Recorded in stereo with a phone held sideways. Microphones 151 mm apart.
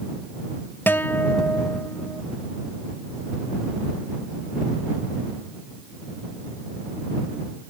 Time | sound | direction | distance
0.9 | a guitar | 15° left (ahead or behind) | ?